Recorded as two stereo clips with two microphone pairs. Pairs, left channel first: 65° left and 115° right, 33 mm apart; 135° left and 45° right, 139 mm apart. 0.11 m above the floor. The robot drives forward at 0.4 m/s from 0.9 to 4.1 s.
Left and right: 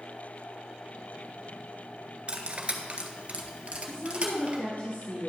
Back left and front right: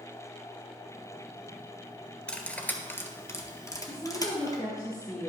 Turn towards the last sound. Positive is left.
turn(degrees=85)